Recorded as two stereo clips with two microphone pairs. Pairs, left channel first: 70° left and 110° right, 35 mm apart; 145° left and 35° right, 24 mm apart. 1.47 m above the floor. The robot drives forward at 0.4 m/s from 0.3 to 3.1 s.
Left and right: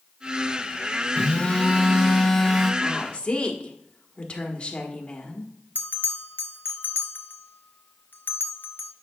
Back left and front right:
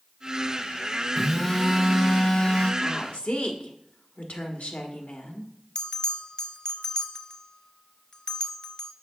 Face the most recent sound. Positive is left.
turn(degrees=80)